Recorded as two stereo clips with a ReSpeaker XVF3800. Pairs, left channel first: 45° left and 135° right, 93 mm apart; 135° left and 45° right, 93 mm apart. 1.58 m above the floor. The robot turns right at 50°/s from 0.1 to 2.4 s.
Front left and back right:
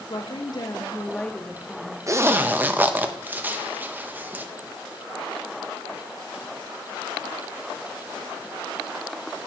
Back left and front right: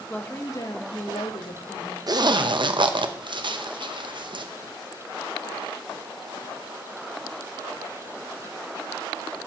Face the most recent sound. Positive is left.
turn(degrees=-65)